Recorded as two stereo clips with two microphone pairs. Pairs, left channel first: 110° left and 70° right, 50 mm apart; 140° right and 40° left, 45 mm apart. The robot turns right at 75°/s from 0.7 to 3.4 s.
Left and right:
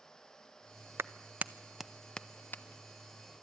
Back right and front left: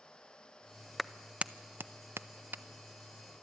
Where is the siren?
No siren in this recording.